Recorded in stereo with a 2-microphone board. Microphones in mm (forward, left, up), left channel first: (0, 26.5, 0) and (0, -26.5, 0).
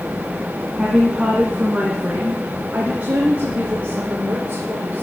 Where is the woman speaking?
15° right (ahead or behind), 2.0 m; by 5.0 s 35° right (ahead or behind), 4.5 m.